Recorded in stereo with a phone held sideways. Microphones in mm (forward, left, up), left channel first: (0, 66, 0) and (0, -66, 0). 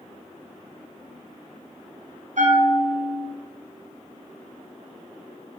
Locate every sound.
2.4 s a bell: 65° right (ahead or behind), 0.7 m